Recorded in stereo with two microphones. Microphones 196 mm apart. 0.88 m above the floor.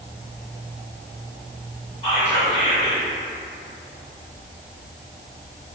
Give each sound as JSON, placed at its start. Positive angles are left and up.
{"t": 2.0, "sound": "whispering", "side_deg": 25, "distance_m": 1.0}